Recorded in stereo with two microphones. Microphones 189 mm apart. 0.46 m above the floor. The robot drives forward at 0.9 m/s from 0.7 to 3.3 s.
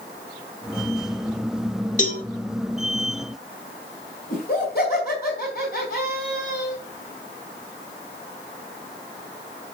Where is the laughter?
60° left (ahead or behind), 3 m.